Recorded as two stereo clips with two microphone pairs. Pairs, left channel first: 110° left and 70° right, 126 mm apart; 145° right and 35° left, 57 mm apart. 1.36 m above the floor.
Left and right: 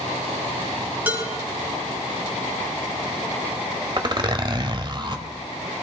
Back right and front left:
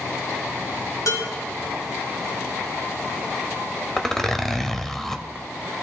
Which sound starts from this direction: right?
A zipper, at 4.0 s.